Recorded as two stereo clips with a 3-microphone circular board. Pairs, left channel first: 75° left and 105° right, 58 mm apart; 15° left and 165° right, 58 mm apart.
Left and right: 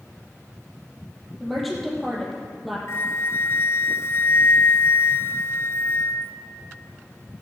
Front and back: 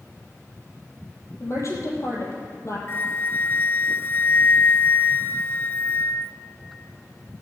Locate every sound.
1.4 s a woman speaking: 15° right, 4 m
2.9 s a flute: 55° left, 0.6 m